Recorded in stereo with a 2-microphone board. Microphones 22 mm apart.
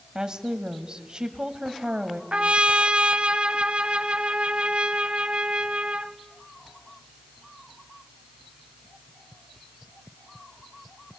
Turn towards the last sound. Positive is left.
turn(degrees=-55)  # may be behind; listen again after turning